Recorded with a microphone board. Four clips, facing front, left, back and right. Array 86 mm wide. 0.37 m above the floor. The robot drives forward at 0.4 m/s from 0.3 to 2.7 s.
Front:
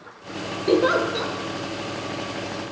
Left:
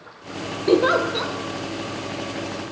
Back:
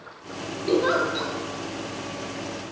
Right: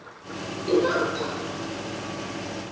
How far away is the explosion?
I don't hear an explosion.